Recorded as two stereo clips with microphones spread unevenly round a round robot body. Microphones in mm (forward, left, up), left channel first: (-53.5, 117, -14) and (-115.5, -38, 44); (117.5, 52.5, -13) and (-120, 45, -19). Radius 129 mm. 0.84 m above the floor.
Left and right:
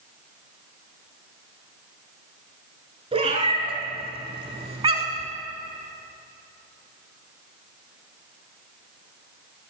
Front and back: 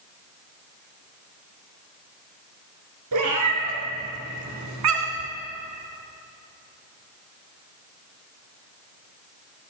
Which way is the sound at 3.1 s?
165° right.